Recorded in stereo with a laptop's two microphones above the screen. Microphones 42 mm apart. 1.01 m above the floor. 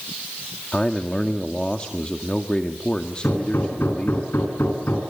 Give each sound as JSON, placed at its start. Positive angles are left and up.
{"t": 0.7, "sound": "a man speaking", "side_deg": 20, "distance_m": 1.8}
{"t": 3.2, "sound": "hammering", "side_deg": 60, "distance_m": 9.0}